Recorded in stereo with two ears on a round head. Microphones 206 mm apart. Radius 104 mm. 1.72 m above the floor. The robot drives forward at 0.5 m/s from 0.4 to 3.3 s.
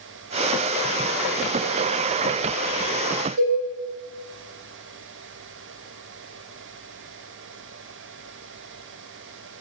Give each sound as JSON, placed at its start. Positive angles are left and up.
{"t": 3.4, "sound": "a cowbell", "side_deg": -35, "distance_m": 2.0}